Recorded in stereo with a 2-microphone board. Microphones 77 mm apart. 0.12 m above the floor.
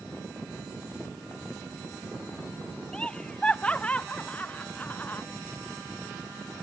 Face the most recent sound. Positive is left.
turn(degrees=20)  # may be behind; listen again after turning